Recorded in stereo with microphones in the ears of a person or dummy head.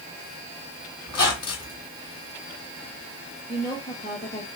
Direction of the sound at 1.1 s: 25° left (ahead or behind).